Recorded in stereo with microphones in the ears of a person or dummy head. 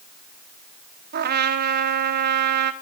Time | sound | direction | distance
1.1 | a trumpet | 50° right (ahead or behind) | 0.7 m